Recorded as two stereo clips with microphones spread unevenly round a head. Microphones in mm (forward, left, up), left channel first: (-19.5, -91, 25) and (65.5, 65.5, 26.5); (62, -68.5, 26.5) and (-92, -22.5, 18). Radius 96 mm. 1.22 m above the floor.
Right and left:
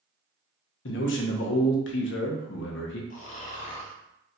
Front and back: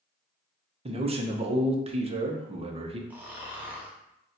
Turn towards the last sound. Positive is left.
turn(degrees=-115)